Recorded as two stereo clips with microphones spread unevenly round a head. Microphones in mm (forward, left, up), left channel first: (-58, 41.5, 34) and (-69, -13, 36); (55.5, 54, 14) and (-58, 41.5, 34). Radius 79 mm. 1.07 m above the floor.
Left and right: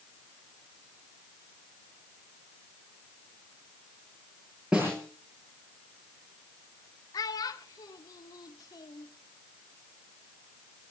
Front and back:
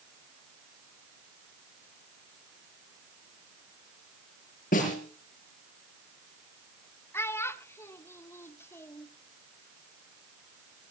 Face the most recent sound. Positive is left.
turn(degrees=75)